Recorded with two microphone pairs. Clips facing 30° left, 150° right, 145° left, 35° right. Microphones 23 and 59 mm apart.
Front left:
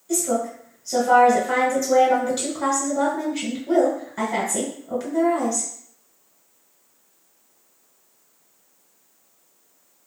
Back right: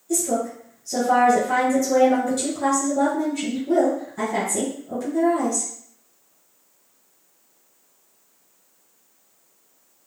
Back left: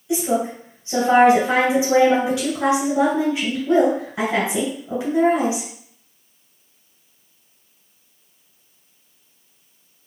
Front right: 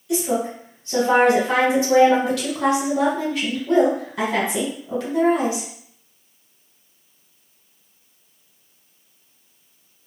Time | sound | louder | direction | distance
0.1 | a woman speaking | even, back left 1 dB | 80° left | 1.7 m